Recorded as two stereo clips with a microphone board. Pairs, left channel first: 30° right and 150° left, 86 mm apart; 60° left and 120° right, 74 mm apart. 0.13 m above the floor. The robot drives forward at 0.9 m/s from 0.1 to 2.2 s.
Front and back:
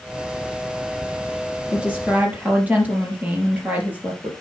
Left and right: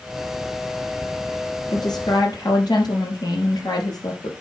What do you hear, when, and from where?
1.7 s a woman speaking: 70° left, 4 m; by 4.3 s 75° left, 4 m